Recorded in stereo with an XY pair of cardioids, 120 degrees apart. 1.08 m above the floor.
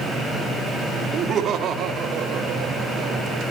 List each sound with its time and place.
1.1 s laughter: 45° right, 1.7 m; by 3.4 s 60° right, 3 m